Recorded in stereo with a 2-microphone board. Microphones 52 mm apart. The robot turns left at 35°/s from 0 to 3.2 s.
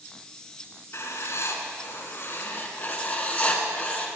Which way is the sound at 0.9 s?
110° left.